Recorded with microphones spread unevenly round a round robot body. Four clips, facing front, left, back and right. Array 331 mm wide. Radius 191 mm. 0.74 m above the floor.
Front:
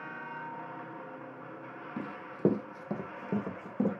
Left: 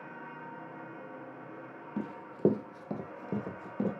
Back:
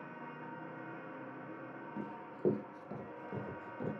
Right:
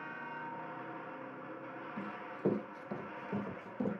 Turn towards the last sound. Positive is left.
turn(degrees=35)